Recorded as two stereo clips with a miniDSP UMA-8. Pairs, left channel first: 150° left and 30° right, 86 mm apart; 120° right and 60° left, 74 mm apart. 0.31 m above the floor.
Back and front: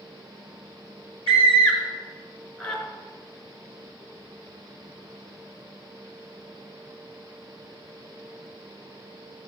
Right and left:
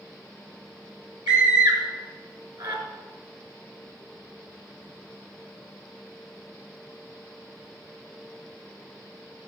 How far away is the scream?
About 4 m.